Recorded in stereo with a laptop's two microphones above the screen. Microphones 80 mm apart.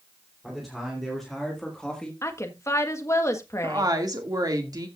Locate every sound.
0.4 s a man speaking: centre (ahead or behind), 3 m; by 2.1 s 10° left (ahead or behind), 1.3 m
2.2 s a woman speaking: 35° left (ahead or behind), 1.4 m
3.6 s a woman speaking: 55° right (ahead or behind), 2 m